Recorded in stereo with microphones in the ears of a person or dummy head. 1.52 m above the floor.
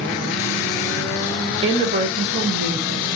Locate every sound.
1.6 s a woman speaking: 30° right (ahead or behind), 0.6 m; by 3.1 s 70° right (ahead or behind), 1.1 m